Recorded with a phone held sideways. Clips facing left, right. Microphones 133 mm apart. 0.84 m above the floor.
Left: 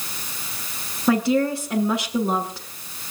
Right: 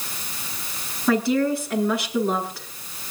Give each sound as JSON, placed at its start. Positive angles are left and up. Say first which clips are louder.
{"t": 1.1, "sound": "a woman speaking", "louder": "left 1 dB", "side_deg": 20, "distance_m": 10.0}